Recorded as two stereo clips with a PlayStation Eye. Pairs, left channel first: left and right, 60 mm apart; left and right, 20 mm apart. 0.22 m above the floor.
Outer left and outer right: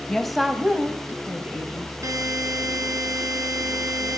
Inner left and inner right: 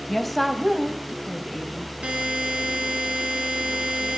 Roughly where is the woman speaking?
Centre.